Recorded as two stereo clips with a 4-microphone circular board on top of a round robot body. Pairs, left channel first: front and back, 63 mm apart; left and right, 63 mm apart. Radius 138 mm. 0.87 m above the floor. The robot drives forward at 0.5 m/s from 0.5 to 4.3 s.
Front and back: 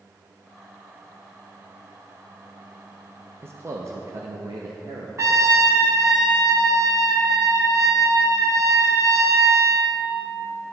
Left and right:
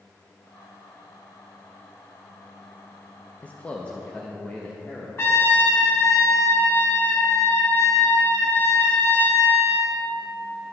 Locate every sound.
3.4 s a man speaking: 150° left, 0.7 m; by 5.1 s 165° left, 1.1 m
5.2 s a trumpet: 140° left, 1.1 m